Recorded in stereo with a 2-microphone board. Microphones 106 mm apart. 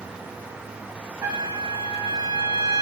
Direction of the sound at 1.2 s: 20° right (ahead or behind).